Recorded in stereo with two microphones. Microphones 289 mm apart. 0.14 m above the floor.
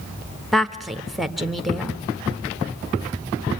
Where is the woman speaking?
Centre (ahead or behind), 1.2 m.